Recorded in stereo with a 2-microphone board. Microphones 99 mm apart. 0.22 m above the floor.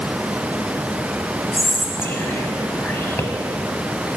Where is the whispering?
25° left (ahead or behind), 1.0 m.